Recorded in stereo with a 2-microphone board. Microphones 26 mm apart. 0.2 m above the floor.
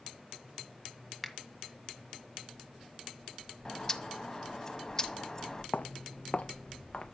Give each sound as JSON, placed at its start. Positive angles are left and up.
{"t": 1.2, "sound": "a finger snap", "side_deg": 0, "distance_m": 1.3}
{"t": 3.6, "sound": "a bird", "side_deg": 25, "distance_m": 0.8}
{"t": 5.7, "sound": "footsteps", "side_deg": 70, "distance_m": 0.5}